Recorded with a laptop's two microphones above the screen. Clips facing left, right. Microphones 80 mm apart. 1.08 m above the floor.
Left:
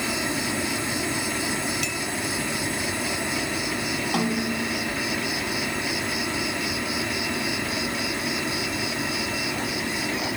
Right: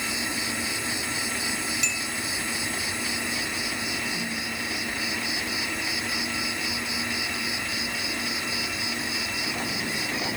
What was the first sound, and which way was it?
An insect, 65° left (ahead or behind).